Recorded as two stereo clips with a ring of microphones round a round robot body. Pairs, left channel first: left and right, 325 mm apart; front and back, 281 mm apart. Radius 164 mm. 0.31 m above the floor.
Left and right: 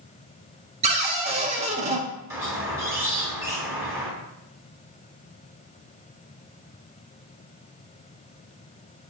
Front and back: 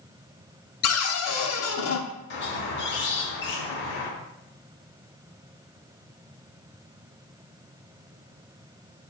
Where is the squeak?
10° right, 0.7 m.